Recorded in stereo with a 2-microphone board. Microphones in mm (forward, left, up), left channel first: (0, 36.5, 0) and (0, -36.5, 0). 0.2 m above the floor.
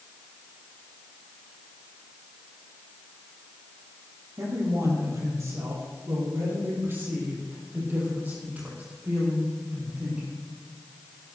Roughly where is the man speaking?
Right.